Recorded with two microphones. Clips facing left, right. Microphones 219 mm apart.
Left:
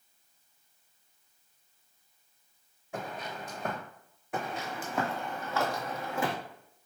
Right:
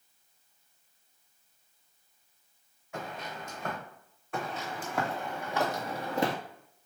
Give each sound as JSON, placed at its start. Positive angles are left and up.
{"t": 2.9, "sound": "footsteps", "side_deg": 35, "distance_m": 1.7}
{"t": 4.3, "sound": "footsteps", "side_deg": 15, "distance_m": 1.2}